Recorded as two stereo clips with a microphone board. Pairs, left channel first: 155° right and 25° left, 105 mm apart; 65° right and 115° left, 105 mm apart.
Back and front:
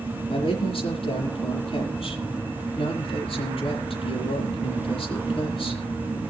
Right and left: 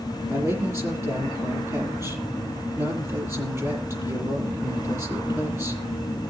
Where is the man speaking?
Straight behind, 8 m.